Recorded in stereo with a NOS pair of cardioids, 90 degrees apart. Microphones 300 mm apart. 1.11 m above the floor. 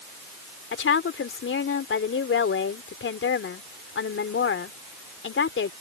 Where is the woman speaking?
45° left.